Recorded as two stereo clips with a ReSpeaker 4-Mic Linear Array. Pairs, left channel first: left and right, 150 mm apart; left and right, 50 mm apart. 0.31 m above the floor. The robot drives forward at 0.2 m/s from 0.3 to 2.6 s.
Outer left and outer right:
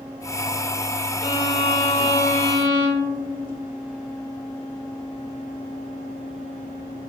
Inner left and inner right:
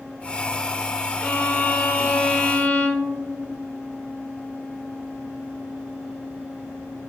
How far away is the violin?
About 0.7 m.